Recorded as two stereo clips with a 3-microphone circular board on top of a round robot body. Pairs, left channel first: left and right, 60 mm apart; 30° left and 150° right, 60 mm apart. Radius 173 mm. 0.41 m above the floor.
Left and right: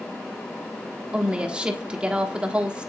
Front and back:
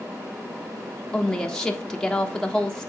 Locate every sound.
1.1 s a woman speaking: 40° right, 1.4 m